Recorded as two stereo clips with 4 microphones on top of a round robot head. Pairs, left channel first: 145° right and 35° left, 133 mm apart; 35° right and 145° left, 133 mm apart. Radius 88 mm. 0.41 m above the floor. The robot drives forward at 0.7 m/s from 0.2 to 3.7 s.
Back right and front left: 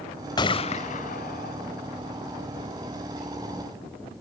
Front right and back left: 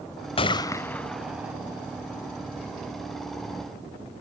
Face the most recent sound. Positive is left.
turn(degrees=-165)